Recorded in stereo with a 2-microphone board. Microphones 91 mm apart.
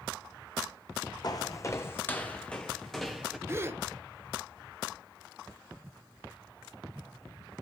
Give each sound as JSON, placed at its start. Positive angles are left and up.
{"t": 1.2, "sound": "footsteps", "side_deg": 45, "distance_m": 1.0}
{"t": 3.5, "sound": "a gasp", "side_deg": -30, "distance_m": 0.9}